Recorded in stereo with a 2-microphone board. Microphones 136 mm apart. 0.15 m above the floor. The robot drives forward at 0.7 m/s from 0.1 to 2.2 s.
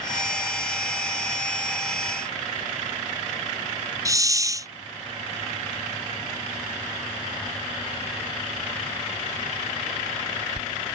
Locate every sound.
4.0 s a hiss: 25° right (ahead or behind)